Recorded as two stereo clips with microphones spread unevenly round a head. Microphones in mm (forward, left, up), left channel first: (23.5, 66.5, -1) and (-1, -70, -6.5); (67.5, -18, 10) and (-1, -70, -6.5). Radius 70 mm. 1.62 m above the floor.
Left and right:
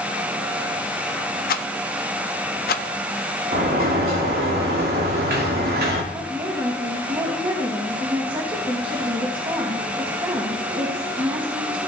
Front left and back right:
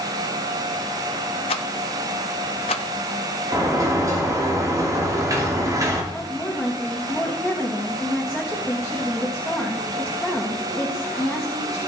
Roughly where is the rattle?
Ahead left.